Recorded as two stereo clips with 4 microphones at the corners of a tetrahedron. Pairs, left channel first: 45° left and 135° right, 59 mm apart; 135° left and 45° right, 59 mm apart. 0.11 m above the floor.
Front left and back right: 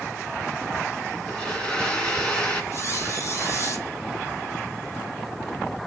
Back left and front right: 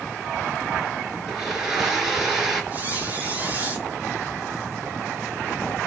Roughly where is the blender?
Ahead.